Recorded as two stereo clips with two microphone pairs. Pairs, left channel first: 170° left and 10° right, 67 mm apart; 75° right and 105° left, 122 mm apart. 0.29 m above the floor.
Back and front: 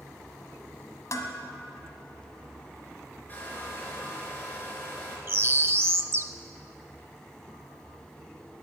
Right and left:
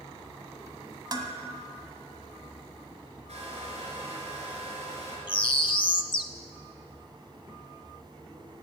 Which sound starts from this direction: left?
A hair dryer, at 3.3 s.